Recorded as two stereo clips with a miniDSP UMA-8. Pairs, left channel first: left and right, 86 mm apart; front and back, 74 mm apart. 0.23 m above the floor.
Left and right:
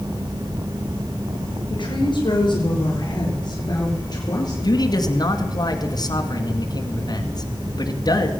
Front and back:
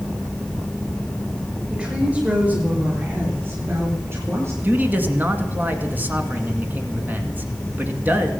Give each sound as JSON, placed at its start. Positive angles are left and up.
{"t": 1.7, "sound": "a woman speaking", "azimuth_deg": 105, "distance_m": 4.5}
{"t": 4.6, "sound": "a man speaking", "azimuth_deg": 115, "distance_m": 1.9}